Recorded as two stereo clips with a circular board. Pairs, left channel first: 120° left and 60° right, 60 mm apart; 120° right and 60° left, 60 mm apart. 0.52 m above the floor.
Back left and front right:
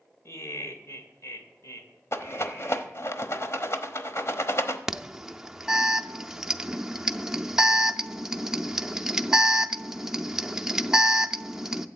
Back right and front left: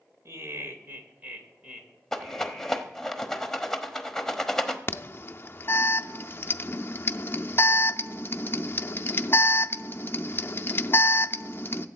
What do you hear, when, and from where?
0.2 s laughter: 90° left, 2.5 m; by 3.0 s 160° left, 3 m
2.1 s a rattle: 160° left, 1.1 m
4.9 s an alarm: 135° right, 0.5 m